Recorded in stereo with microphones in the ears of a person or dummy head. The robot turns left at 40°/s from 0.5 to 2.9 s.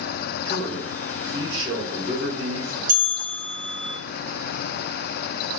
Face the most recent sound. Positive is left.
turn(degrees=-45)  # may be behind; listen again after turning